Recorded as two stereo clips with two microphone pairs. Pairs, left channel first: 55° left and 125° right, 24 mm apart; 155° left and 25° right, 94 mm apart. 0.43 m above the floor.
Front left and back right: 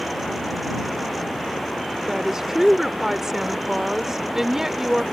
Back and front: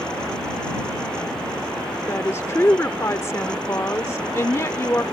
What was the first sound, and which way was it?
A woman speaking, straight behind.